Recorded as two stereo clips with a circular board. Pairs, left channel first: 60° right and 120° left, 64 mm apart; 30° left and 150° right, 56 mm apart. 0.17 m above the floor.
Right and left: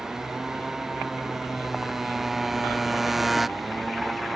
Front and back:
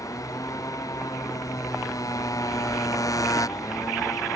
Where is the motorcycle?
40° left; by 4.4 s 30° left.